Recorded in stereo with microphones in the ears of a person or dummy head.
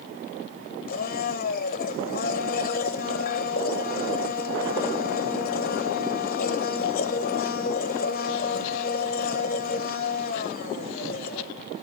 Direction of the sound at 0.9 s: 45° left (ahead or behind).